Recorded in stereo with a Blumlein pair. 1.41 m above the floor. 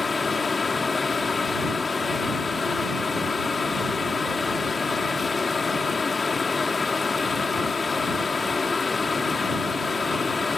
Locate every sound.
0.0 s a fan: 15° left